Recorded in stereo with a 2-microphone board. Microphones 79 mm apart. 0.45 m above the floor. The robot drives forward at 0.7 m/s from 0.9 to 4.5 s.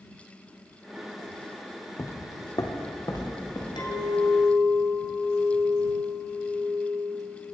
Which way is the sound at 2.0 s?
35° left (ahead or behind).